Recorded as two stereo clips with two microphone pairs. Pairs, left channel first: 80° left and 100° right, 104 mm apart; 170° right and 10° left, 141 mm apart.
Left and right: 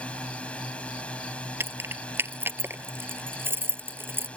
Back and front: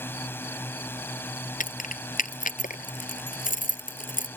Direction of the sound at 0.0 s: 140° left.